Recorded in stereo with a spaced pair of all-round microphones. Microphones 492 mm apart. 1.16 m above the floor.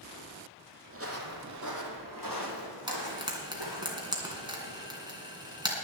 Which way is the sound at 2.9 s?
10° right (ahead or behind).